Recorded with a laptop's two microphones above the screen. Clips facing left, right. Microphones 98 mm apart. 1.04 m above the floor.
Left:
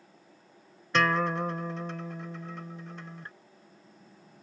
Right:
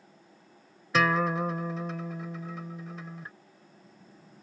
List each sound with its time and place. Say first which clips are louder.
0.9 s a guitar: right 1 dB; 5° right (ahead or behind)